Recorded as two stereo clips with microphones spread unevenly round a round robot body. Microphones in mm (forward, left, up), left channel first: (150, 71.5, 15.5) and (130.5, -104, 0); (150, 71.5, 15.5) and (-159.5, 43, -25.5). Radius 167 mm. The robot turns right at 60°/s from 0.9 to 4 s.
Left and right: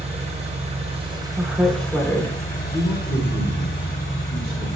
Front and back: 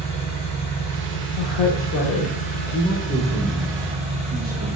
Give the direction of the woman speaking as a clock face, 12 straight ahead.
1 o'clock.